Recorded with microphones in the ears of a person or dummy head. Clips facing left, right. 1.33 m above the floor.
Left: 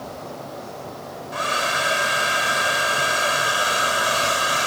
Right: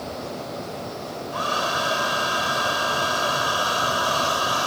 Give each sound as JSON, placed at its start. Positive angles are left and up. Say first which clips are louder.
{"t": 1.3, "sound": "a hair dryer", "louder": "left 1 dB", "side_deg": 25}